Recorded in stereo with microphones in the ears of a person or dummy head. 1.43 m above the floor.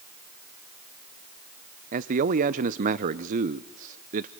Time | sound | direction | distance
1.9 | a man speaking | 40° right (ahead or behind) | 0.6 m